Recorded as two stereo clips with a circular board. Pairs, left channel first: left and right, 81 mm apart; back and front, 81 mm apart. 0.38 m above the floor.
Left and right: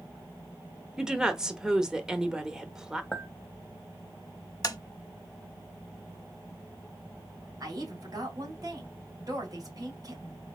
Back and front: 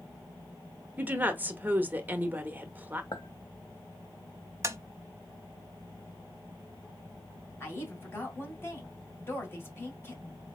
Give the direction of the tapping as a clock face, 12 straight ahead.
10 o'clock.